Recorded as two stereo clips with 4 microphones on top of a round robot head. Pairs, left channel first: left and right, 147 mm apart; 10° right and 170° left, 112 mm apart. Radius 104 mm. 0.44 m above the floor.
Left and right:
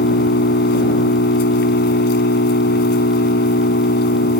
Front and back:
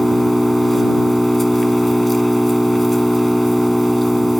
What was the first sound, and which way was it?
An engine running, 80° left.